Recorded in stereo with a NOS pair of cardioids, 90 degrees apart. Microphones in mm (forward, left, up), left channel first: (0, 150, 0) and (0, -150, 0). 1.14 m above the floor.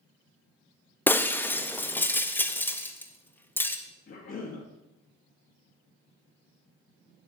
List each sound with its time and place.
1.1 s breaking glass: 5° left, 0.8 m
4.1 s a cough: 45° left, 1.7 m